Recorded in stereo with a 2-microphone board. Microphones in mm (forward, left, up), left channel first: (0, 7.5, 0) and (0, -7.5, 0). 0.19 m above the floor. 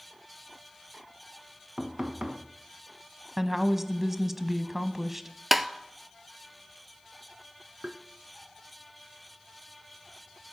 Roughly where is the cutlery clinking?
I don't hear cutlery clinking.